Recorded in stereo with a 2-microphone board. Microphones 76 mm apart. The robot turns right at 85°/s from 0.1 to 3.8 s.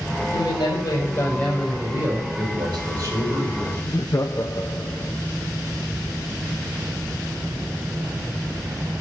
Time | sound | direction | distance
0.3 | a man speaking | 75° left | 5.5 m
2.4 | a man speaking | 100° right | 5.5 m
3.8 | laughter | 40° left (ahead or behind) | 0.8 m